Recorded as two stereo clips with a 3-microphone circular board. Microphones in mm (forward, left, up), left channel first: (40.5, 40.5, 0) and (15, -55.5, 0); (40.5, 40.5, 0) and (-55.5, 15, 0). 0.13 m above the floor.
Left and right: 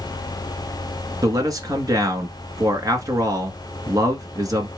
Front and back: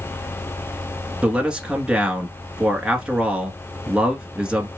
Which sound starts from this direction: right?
A man speaking, at 1.2 s.